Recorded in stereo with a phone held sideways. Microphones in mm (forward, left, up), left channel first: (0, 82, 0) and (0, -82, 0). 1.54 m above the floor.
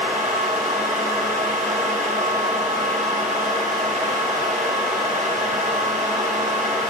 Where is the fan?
55° right (ahead or behind), 4.5 m.